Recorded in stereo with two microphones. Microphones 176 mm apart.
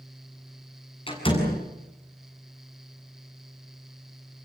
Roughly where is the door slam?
Left.